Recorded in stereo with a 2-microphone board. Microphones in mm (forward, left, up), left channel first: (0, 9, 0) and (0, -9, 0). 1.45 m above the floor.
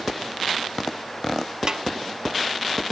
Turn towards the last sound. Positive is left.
turn(degrees=-40)  # may be behind; listen again after turning